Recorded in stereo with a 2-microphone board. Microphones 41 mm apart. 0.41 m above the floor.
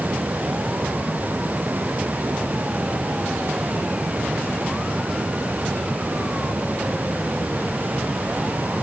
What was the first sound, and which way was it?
Only background noise.